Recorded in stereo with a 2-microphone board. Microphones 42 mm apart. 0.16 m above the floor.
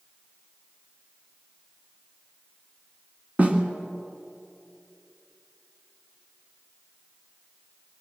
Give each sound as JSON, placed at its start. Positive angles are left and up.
{"t": 3.4, "sound": "a snare drum", "side_deg": -35, "distance_m": 2.0}